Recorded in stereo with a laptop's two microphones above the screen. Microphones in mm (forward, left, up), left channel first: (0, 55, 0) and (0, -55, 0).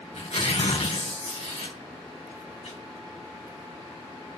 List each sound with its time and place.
0.1 s tearing paper: 80° left, 3.5 m